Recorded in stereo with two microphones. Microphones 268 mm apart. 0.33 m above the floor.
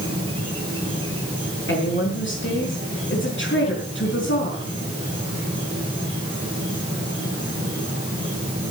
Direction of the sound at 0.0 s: 20° right (ahead or behind).